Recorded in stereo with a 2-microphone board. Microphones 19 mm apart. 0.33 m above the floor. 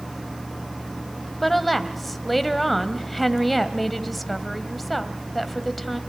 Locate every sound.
1.4 s a woman speaking: 5° left (ahead or behind), 1.7 m